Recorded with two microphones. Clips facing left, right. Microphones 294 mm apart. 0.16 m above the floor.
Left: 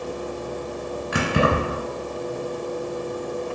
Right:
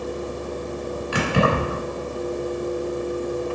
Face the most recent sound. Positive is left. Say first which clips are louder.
# even
turn(degrees=20)  # may be behind; listen again after turning